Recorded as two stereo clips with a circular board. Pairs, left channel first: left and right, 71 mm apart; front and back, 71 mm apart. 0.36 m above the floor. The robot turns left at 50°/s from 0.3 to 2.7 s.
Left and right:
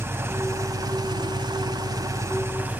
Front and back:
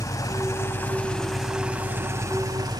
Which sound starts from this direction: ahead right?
An engine running, at 0.0 s.